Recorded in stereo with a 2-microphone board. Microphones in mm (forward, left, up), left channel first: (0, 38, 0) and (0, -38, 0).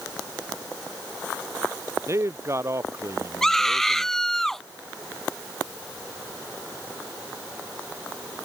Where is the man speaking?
40° right (ahead or behind).